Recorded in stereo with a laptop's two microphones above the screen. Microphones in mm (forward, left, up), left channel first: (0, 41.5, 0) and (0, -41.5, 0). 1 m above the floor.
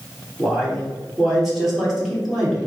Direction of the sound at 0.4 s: Centre (ahead or behind).